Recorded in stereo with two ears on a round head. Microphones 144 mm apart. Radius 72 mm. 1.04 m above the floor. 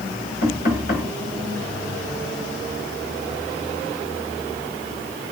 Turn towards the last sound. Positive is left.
turn(degrees=55)  # may be behind; listen again after turning